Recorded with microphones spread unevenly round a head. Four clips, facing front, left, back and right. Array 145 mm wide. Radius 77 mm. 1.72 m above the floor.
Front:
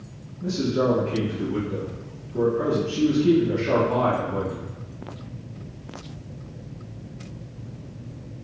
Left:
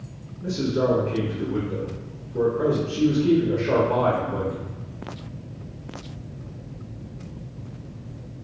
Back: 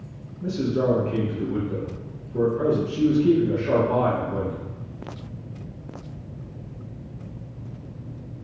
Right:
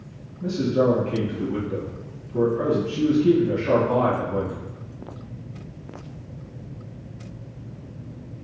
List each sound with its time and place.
0.4 s a man speaking: 100° right, 1.3 m